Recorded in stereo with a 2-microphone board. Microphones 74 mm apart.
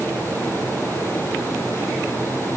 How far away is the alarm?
No alarm in this recording.